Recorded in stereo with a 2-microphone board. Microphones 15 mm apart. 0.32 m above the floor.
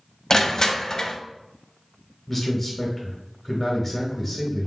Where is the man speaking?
15° left (ahead or behind), 1.1 m.